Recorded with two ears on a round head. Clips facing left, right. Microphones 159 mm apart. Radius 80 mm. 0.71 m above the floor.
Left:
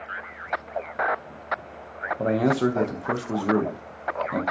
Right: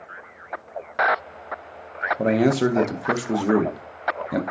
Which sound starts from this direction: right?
A man speaking, at 2.2 s.